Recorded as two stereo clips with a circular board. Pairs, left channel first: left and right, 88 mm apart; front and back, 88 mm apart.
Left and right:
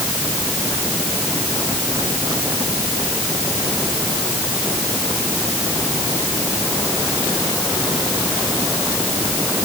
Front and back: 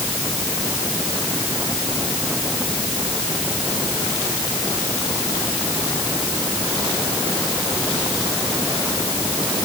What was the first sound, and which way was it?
Only background noise.